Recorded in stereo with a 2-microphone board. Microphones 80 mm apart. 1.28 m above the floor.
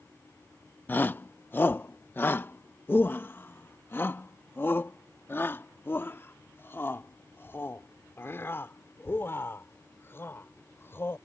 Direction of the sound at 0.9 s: 25° left (ahead or behind).